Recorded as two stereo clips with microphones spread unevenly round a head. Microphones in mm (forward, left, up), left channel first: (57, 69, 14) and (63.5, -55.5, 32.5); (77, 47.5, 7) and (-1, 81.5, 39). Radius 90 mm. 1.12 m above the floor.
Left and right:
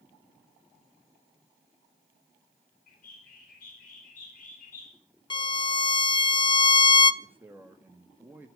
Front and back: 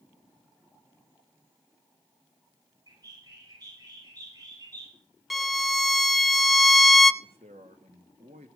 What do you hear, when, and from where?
2.9 s a bird: 120° left, 9 m
5.3 s a violin: 55° left, 1.2 m
7.2 s a man speaking: 170° right, 2.0 m